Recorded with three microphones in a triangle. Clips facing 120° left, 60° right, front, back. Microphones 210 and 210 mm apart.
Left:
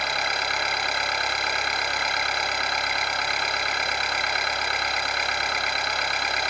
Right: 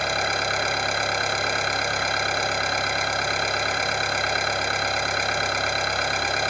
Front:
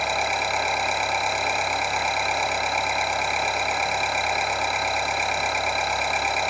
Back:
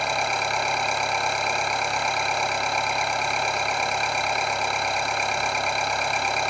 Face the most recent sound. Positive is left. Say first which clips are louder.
# right 5 dB, even
turn(degrees=-85)